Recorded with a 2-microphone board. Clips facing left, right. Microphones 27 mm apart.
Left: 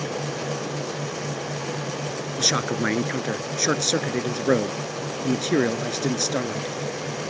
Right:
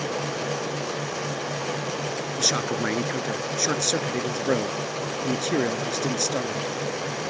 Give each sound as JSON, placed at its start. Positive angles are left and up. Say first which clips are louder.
{"t": 2.4, "sound": "a man speaking", "louder": "left 2 dB", "side_deg": 15}